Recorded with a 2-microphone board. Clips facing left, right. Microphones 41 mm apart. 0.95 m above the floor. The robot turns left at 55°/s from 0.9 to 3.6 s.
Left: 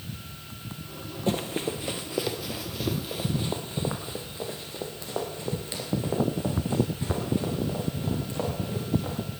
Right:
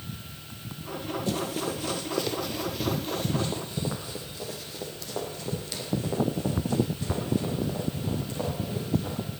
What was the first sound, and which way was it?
Running footsteps, 30° left (ahead or behind).